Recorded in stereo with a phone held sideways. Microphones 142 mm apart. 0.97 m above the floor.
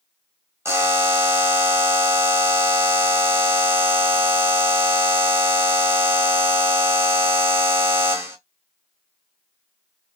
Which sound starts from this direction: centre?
A buzzer, at 0.7 s.